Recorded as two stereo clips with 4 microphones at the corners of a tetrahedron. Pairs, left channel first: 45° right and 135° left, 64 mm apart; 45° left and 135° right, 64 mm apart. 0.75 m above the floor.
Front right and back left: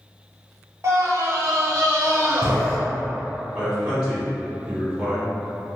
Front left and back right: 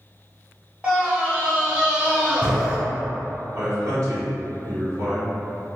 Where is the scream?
160° left, 0.9 m.